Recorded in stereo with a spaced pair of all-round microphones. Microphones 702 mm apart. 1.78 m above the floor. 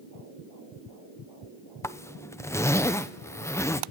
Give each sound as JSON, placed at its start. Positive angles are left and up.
{"t": 1.8, "sound": "a zipper", "side_deg": 5, "distance_m": 0.7}